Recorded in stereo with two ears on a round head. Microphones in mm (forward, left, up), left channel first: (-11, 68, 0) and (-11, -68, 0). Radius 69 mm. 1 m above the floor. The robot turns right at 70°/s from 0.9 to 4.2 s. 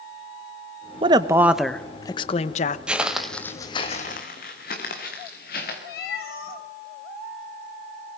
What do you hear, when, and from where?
1.0 s a woman speaking: 45° right, 0.8 m; by 2.8 s 80° left, 0.8 m
2.9 s footsteps: 5° right (ahead or behind), 1.0 m; by 5.8 s 60° left (ahead or behind), 5 m
5.9 s a cat meowing: 80° left, 4.5 m